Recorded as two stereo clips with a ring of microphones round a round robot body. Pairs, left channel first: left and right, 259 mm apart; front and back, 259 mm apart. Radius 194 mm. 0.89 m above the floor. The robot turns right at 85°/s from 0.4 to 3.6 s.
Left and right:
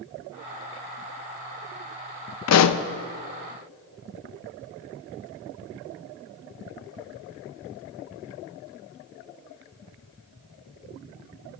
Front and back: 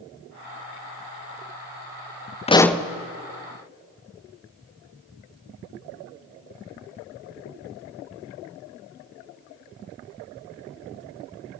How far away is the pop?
About 0.6 m.